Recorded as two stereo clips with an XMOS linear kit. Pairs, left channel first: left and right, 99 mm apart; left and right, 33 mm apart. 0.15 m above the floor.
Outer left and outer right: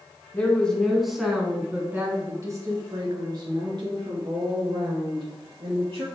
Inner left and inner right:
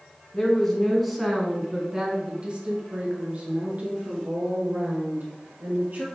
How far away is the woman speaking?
About 1.2 m.